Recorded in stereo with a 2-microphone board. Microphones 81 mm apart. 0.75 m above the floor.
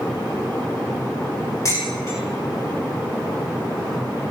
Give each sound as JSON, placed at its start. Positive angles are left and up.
{"t": 1.6, "sound": "dishes clattering", "side_deg": 40, "distance_m": 3.5}